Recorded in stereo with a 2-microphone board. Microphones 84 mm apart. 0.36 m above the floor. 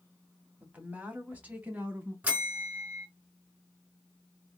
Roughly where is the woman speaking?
Centre.